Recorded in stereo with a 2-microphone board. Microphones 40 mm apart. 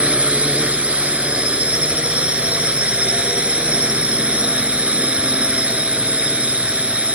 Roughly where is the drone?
Right.